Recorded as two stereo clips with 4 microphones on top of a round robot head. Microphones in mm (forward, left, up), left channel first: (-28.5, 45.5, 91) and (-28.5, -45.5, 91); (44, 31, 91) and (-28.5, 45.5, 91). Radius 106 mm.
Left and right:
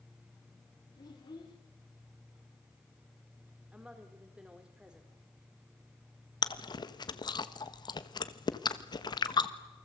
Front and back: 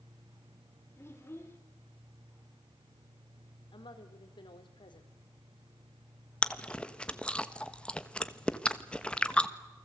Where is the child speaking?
45° left, 3 m.